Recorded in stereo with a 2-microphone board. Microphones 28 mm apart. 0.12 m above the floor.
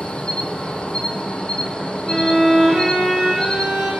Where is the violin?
15° right (ahead or behind), 1.9 m.